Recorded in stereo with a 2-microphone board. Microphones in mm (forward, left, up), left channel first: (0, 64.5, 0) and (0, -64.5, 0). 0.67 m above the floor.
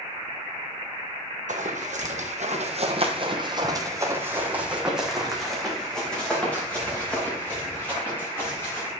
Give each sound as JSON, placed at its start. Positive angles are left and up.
{"t": 1.5, "sound": "running footsteps", "side_deg": -70, "distance_m": 1.8}